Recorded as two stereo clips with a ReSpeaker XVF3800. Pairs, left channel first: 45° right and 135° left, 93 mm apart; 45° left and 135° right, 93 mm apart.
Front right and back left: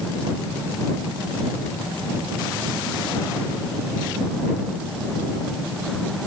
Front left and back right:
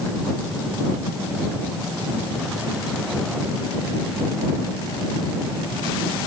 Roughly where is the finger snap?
I don't hear a finger snap.